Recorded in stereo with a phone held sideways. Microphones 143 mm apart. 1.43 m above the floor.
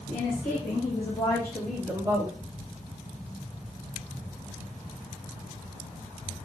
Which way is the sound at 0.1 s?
55° left (ahead or behind).